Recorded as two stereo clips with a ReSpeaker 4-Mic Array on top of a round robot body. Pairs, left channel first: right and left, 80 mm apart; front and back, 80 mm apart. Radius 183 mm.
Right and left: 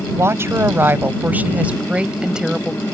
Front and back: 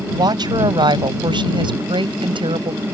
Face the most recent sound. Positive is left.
turn(degrees=175)